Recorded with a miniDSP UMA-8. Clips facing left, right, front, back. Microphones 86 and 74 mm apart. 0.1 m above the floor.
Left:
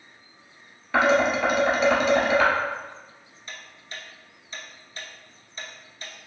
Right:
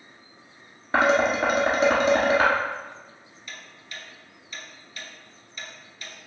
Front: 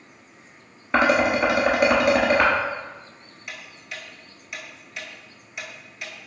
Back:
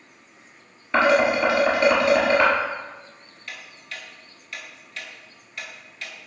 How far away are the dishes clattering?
About 1.2 m.